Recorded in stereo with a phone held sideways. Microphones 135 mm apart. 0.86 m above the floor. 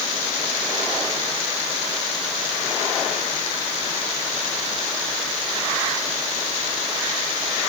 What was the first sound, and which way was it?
Only background noise.